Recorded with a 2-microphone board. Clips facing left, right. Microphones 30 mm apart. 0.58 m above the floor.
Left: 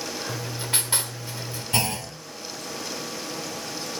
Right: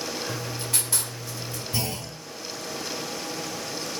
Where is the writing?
35° left (ahead or behind), 1.6 m.